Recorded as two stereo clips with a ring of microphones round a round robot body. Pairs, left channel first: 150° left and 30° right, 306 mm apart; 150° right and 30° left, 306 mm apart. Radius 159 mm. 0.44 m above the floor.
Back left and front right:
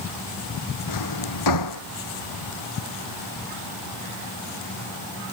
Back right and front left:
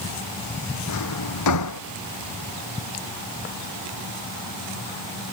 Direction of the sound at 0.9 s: 175° left.